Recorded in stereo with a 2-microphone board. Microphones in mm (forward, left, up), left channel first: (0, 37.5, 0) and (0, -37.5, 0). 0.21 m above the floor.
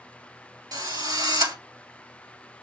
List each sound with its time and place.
0.7 s a drill: 60° right (ahead or behind), 1.4 m